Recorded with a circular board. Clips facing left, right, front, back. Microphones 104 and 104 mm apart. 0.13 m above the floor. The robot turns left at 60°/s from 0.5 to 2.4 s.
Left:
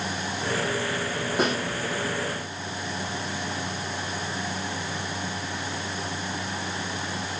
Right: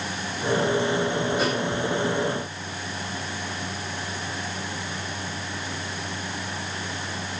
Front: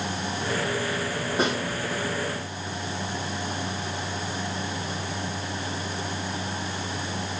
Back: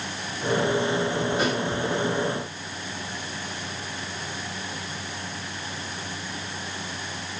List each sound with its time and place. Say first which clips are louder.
1.4 s a snare drum: left 4 dB, front 3 dB; 65° left, 4.5 m; by 1.6 s 50° left, 4.5 m